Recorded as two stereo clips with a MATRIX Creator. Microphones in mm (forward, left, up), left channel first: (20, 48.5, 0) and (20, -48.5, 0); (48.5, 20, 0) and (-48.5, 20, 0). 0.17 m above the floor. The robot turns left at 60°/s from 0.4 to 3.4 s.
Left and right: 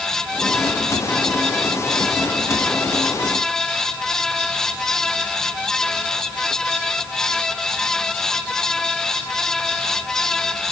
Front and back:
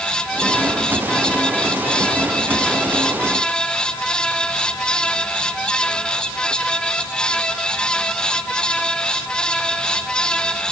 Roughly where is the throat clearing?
I don't hear throat clearing.